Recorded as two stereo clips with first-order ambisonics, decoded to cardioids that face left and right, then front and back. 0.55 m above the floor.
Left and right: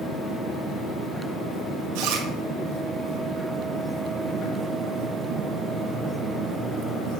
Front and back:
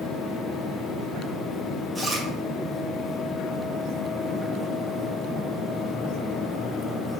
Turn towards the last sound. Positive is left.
turn(degrees=-95)